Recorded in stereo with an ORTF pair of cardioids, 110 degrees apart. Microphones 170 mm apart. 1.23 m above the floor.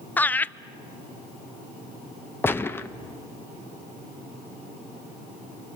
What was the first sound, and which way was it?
Laughter, 10° left.